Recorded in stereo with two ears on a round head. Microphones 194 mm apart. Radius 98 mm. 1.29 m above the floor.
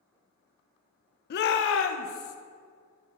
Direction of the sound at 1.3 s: 45° left (ahead or behind).